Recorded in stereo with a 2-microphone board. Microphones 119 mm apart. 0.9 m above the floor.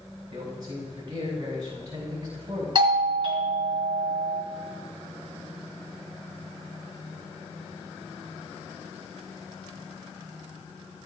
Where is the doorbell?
40° right (ahead or behind), 1.7 m.